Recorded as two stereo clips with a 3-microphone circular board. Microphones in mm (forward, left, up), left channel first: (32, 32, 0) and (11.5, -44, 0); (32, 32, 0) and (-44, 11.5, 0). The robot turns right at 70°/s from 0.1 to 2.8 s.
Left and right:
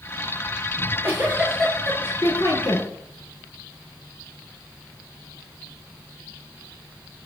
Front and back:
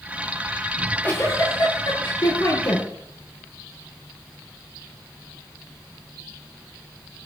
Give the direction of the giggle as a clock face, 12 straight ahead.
2 o'clock.